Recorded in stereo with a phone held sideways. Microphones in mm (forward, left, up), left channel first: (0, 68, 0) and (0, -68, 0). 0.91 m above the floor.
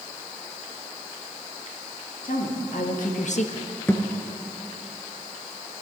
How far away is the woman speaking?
About 2 m.